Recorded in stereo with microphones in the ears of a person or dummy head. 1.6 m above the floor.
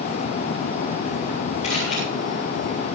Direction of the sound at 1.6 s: 35° left (ahead or behind).